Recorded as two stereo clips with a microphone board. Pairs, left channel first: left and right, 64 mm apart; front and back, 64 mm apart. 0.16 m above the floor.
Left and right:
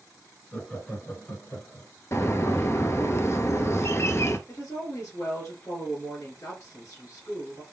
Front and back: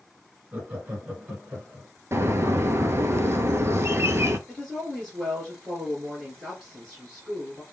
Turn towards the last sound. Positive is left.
turn(degrees=95)